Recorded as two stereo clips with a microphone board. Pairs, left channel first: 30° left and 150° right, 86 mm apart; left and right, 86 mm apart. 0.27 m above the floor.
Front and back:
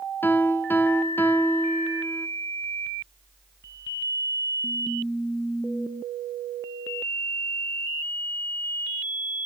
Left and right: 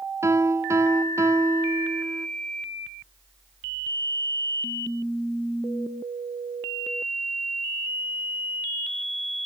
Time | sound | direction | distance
0.2 | a piano | 35° right | 0.6 m